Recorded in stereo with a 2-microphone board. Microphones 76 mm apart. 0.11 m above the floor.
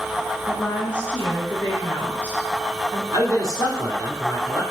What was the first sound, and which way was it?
A woman speaking, 20° left (ahead or behind).